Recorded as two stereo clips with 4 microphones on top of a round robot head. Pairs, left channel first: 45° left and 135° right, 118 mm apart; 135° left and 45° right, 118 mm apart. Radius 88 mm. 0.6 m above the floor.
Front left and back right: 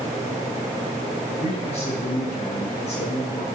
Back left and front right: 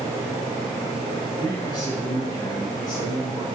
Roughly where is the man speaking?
Left.